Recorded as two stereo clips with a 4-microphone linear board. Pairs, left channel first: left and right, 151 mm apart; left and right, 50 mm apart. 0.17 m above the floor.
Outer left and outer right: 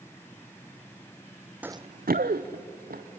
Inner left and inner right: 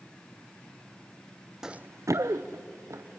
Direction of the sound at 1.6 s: 10° right (ahead or behind).